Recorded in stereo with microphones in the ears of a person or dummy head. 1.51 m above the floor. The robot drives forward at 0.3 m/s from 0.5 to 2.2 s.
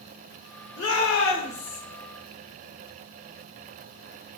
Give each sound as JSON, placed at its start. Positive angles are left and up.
{"t": 0.8, "sound": "a shout", "side_deg": 65, "distance_m": 1.3}